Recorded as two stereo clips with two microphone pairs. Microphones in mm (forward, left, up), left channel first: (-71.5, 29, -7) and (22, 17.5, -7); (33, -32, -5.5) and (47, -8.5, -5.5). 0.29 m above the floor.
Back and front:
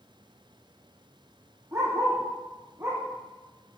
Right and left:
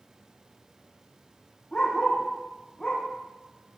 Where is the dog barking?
65° right, 5.5 m.